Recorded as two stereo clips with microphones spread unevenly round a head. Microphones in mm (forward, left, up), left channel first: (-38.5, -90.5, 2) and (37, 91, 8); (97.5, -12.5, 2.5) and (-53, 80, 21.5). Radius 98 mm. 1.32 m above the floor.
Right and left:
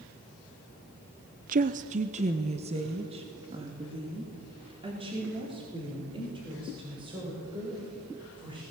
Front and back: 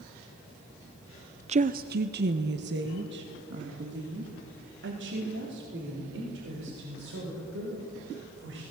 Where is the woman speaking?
100° left, 0.6 m; by 8.6 s 135° left, 9 m.